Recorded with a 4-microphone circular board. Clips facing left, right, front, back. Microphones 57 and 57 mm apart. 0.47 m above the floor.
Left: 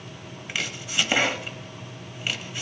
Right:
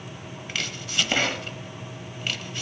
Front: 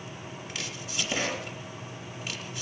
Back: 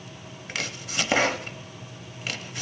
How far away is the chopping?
About 0.9 m.